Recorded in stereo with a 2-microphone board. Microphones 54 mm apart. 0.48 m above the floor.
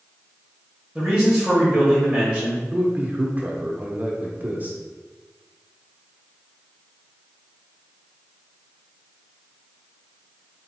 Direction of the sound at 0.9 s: 10° right (ahead or behind).